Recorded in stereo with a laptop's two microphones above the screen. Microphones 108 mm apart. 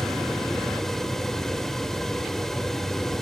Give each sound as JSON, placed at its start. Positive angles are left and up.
{"t": 0.0, "sound": "a fan", "side_deg": 5, "distance_m": 1.5}